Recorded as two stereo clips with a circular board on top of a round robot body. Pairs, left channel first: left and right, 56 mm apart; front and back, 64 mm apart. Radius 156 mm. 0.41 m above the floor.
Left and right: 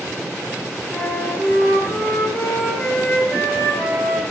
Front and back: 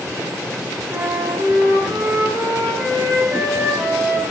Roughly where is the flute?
Behind left.